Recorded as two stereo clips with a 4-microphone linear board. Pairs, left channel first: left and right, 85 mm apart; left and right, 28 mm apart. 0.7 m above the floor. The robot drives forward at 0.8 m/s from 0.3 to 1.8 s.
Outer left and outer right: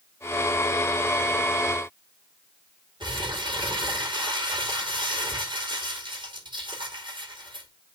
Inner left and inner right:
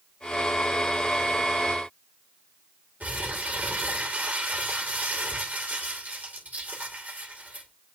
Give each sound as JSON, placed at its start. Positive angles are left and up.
{"t": 3.0, "sound": "crumpling", "side_deg": -65, "distance_m": 2.5}